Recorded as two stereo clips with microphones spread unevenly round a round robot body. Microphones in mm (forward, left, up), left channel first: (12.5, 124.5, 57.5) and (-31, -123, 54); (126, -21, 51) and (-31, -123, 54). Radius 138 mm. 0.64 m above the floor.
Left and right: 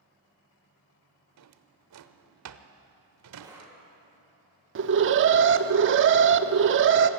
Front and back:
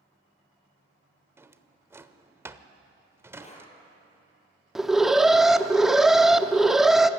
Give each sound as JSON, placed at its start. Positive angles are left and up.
{"t": 1.4, "sound": "a drawer", "azimuth_deg": -70, "distance_m": 0.9}
{"t": 3.4, "sound": "breathing", "azimuth_deg": -25, "distance_m": 6.0}
{"t": 4.8, "sound": "an alarm", "azimuth_deg": -60, "distance_m": 0.8}